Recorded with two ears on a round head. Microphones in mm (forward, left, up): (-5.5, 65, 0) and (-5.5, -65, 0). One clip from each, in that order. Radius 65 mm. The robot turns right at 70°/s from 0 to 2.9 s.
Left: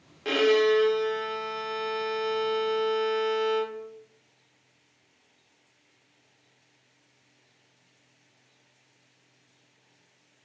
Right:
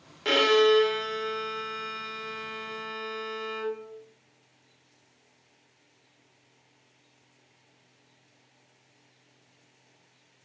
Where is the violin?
25° right (ahead or behind), 0.7 m; by 3.8 s 25° left (ahead or behind), 0.7 m.